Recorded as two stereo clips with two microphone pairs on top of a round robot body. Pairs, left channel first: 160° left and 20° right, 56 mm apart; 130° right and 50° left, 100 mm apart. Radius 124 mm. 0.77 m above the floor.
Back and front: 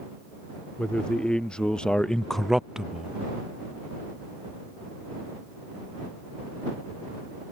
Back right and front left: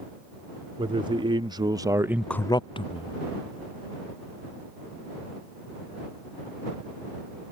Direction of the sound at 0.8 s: 85° left.